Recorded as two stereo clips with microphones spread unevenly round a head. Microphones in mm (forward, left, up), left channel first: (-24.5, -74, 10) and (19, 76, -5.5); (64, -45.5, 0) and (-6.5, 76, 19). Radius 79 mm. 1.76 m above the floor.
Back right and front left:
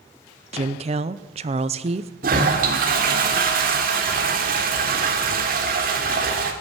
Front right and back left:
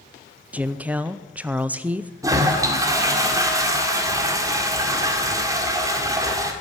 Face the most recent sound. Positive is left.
turn(degrees=70)